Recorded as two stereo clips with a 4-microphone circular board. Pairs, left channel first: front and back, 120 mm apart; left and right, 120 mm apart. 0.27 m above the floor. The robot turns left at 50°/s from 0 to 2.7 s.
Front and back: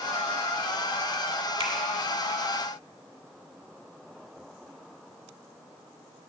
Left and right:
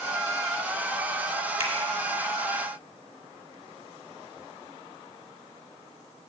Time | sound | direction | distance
1.6 | a finger snap | 145° right | 1.2 m